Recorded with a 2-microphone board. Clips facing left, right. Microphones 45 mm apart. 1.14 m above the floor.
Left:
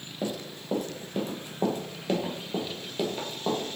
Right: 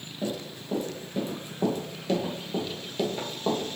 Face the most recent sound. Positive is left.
turn(degrees=-5)  # may be behind; listen again after turning